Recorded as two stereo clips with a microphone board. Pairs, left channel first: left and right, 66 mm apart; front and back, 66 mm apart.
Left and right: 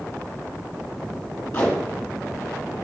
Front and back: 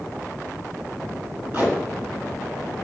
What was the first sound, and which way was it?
Tape being pulled, 125° left.